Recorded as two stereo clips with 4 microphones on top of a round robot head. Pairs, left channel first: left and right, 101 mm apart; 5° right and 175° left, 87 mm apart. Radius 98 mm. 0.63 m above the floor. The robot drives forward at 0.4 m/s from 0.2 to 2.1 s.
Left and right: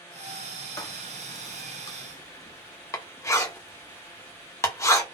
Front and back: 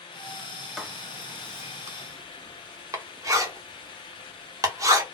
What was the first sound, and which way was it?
Writing, 95° left.